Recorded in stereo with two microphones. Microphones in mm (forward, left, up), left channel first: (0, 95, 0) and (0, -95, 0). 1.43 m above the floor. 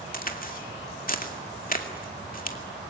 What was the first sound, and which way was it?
A crack, 45° left (ahead or behind).